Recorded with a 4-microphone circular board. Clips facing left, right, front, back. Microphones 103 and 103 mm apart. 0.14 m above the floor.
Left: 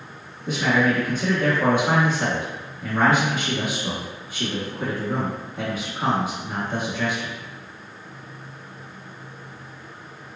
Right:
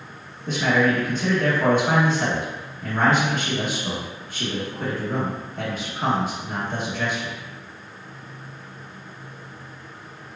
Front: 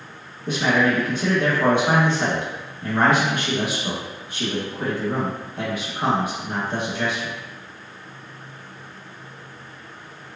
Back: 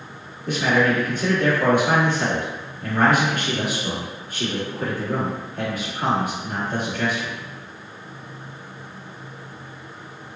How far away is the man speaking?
About 1.1 m.